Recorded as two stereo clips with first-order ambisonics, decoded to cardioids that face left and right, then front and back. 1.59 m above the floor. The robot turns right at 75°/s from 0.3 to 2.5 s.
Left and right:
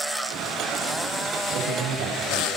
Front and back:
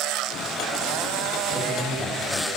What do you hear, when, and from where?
1.5 s a man speaking: 115° right, 8.5 m; by 2.5 s 40° right, 8.5 m